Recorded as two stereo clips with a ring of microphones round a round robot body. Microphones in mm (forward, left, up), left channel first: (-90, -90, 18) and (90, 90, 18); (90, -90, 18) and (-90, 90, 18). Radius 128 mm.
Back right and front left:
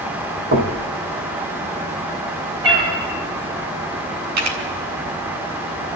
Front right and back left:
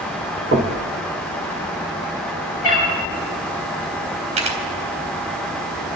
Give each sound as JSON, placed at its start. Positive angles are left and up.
{"t": 0.5, "sound": "knocking", "azimuth_deg": 90, "distance_m": 1.8}
{"t": 2.6, "sound": "a cat meowing", "azimuth_deg": -25, "distance_m": 8.0}
{"t": 4.4, "sound": "a camera shutter", "azimuth_deg": 70, "distance_m": 3.5}